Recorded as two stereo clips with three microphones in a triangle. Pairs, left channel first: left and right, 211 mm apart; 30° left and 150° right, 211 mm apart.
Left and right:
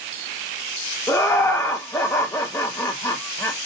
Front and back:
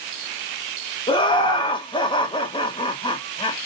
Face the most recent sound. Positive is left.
turn(degrees=35)